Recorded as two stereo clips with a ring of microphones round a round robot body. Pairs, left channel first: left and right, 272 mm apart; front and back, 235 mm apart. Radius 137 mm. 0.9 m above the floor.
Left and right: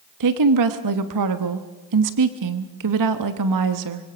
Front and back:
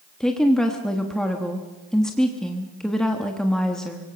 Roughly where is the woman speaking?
Right.